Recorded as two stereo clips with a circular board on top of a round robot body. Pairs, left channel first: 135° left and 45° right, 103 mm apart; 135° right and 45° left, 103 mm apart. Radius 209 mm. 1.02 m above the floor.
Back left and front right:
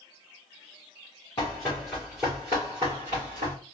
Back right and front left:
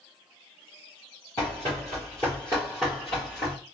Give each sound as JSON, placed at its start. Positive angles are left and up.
{"t": 1.4, "sound": "running footsteps", "azimuth_deg": 170, "distance_m": 1.1}